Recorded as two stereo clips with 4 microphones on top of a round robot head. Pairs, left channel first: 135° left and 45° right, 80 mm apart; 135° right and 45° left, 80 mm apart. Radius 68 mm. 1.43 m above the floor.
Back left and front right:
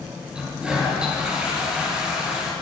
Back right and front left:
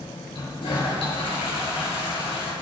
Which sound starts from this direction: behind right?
A toilet flushing, at 0.3 s.